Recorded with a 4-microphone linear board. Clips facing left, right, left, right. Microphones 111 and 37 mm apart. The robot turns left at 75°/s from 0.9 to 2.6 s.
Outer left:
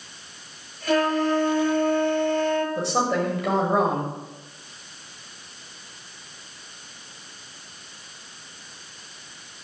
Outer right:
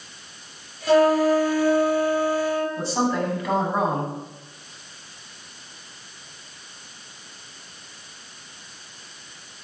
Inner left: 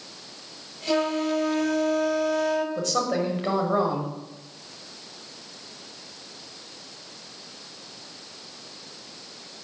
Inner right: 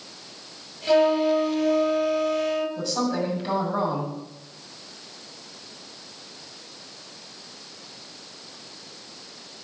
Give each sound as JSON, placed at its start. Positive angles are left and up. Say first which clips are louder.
{"t": 0.9, "sound": "a flute", "louder": "outer right 5 dB, inner right 5 dB", "azimuth_deg": -155, "distance_m": 3.5}
{"t": 2.8, "sound": "a woman speaking", "louder": "even, inner left 1 dB", "side_deg": 70, "distance_m": 6.0}